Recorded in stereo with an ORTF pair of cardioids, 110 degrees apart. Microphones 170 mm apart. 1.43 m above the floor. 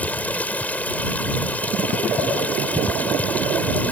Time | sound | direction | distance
0.0 | running water | 10° left | ?